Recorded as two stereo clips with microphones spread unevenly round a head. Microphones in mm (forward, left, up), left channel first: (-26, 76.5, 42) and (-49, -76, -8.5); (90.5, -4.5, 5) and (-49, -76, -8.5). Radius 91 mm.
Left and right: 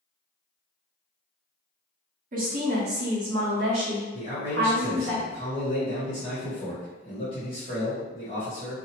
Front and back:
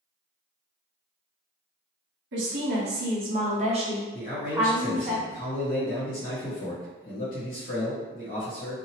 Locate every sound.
2.3 s a woman speaking: 145° right, 1.1 m; by 5.1 s 70° right, 1.7 m
4.1 s a man speaking: 40° left, 1.1 m